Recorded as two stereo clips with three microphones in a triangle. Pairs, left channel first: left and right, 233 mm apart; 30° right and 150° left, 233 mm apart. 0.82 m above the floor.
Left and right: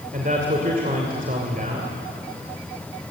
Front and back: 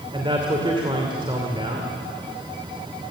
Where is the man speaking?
140° right, 2.5 m.